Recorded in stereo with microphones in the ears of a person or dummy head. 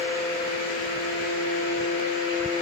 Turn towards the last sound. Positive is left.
No sound to turn to.